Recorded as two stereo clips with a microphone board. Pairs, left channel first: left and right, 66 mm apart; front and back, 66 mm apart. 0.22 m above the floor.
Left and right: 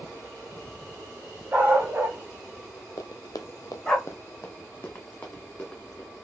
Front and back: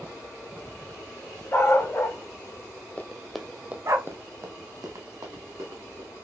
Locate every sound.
1.5 s a dog barking: 35° right, 1.0 m; by 4.0 s 165° left, 0.8 m
3.0 s running footsteps: 65° left, 0.5 m; by 6.1 s 165° left, 1.5 m